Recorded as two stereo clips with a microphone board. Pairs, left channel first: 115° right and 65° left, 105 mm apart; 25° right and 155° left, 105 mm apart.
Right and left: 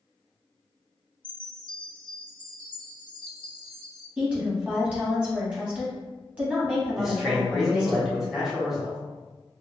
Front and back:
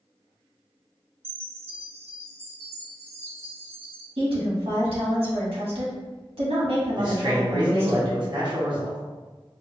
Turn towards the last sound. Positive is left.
turn(degrees=155)